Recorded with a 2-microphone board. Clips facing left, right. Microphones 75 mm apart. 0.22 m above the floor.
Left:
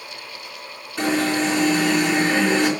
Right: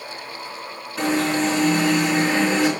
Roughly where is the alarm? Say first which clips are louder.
Even; centre.